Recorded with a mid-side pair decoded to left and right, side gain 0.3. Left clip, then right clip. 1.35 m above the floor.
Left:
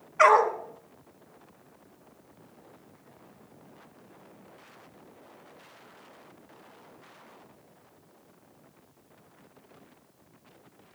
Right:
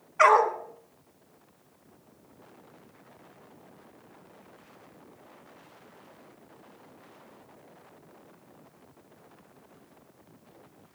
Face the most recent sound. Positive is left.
turn(degrees=-5)